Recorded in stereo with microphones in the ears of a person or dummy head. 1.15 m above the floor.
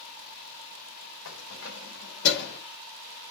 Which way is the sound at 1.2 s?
90° left.